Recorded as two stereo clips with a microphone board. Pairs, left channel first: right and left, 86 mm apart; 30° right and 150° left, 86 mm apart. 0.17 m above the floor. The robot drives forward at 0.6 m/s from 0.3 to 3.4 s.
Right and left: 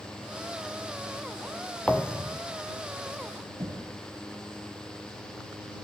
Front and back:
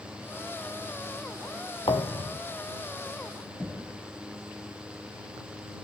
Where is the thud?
15° right, 1.0 m; by 2.4 s 20° right, 0.7 m.